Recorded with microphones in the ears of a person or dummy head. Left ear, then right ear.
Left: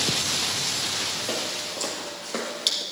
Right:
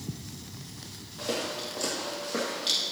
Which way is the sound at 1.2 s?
15° left (ahead or behind).